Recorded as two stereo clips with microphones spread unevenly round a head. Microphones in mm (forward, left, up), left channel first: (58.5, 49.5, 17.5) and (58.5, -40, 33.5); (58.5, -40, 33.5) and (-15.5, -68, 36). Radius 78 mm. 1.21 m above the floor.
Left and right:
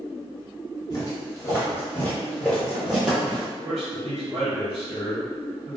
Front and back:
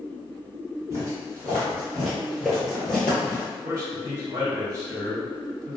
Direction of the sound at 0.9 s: 150° left.